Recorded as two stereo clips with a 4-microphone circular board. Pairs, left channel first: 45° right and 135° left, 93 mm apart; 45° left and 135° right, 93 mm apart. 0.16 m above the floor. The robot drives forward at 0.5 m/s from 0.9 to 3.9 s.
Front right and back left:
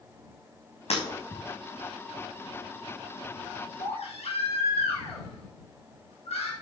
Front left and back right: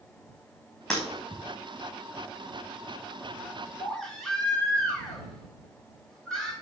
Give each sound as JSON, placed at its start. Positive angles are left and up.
{"t": 0.9, "sound": "breaking glass", "azimuth_deg": -35, "distance_m": 5.5}
{"t": 3.8, "sound": "a baby crying", "azimuth_deg": -35, "distance_m": 5.5}